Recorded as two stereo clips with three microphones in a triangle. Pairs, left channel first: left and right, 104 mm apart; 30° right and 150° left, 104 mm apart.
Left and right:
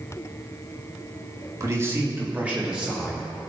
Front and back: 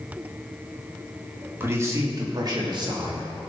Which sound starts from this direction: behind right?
A man speaking, at 1.6 s.